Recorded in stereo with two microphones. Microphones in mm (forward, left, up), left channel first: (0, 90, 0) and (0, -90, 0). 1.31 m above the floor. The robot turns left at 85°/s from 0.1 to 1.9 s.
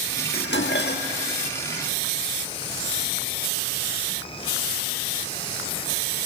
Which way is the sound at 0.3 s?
115° left.